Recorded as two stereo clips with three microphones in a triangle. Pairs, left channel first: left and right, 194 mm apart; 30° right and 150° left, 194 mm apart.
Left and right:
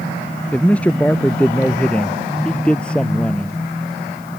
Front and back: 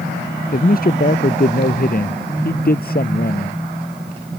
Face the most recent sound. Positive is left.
turn(degrees=5)